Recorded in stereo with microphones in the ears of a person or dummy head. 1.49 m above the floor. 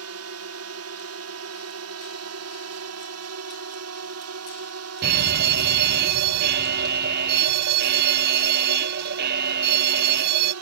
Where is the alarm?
50° right (ahead or behind).